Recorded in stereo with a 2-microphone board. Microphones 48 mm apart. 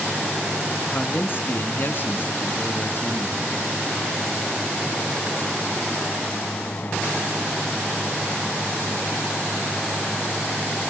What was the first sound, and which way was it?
A man speaking, 45° left (ahead or behind).